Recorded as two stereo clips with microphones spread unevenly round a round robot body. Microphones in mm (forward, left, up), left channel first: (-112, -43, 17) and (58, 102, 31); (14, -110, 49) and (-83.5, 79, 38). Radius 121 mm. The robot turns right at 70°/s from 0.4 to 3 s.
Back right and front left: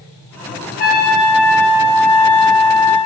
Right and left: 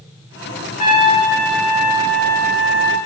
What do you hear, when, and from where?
0.8 s a trumpet: 110° right, 1.0 m; by 3.0 s 40° left, 1.0 m